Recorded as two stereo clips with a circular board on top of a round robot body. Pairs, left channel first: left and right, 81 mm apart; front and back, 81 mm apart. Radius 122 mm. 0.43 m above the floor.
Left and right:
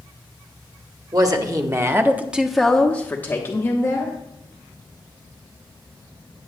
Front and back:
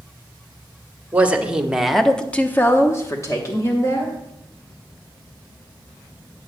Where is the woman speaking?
115° right, 1.5 m; by 4.1 s 40° left, 2.0 m.